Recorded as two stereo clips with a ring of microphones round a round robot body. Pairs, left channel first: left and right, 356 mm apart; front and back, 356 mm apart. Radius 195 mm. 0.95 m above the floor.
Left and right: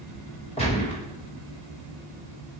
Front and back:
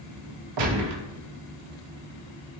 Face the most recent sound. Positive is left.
turn(degrees=165)